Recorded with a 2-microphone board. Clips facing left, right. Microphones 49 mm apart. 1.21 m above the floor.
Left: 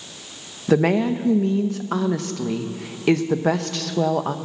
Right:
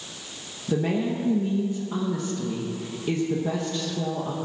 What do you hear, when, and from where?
0.7 s a woman speaking: 85° left, 0.8 m